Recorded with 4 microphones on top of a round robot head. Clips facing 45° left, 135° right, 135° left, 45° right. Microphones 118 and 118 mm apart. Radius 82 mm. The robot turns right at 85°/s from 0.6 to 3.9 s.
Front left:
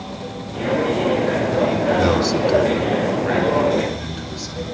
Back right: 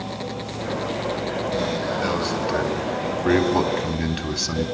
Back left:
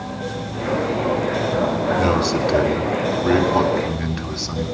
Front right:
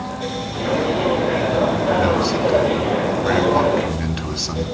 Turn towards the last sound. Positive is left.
turn(degrees=-125)